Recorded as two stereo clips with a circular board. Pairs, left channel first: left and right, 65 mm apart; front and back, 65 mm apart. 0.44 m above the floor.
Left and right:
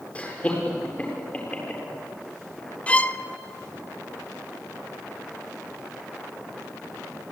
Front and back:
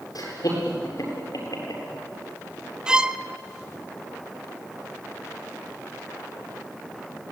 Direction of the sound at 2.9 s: 125° left.